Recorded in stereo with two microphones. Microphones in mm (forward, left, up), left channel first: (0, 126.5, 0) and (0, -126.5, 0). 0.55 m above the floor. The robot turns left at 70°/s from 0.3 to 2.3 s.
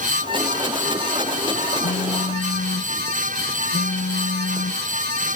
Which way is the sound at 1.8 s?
85° left.